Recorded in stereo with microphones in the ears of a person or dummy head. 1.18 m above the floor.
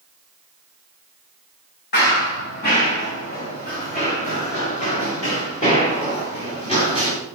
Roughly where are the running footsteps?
Left.